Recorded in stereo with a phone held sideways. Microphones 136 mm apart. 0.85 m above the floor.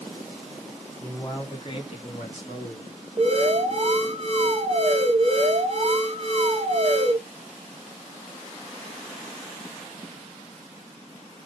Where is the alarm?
45° right (ahead or behind), 1.8 m.